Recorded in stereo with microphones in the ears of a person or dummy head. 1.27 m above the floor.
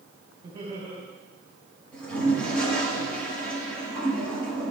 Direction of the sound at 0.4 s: 35° right (ahead or behind).